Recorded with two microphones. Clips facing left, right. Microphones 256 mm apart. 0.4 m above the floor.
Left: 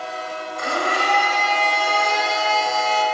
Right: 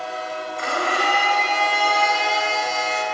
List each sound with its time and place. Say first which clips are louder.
0.6 s a blender: left 1 dB; 45° left (ahead or behind), 0.6 m